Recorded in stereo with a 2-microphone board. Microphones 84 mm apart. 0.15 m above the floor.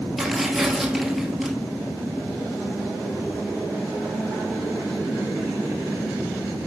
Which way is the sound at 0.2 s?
5° right (ahead or behind).